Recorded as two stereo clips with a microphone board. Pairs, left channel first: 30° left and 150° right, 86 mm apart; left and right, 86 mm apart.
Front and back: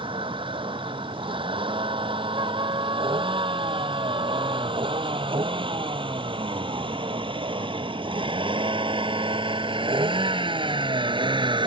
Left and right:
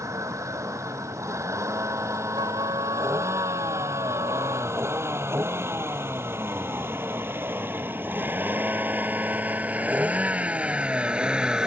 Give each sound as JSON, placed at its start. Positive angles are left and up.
{"t": 0.0, "sound": "a vehicle", "azimuth_deg": -145}
{"t": 2.4, "sound": "a trumpet", "azimuth_deg": -120}